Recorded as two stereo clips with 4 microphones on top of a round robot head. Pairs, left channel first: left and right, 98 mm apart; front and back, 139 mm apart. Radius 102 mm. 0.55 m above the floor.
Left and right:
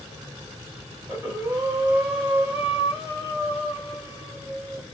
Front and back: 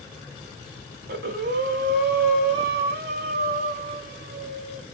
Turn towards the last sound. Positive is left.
turn(degrees=-170)